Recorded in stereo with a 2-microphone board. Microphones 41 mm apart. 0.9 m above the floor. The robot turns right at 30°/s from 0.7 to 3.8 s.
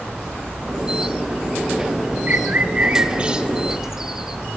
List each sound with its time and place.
2.3 s a bird: 40° right (ahead or behind), 1.2 m; by 4.4 s 10° right (ahead or behind), 1.2 m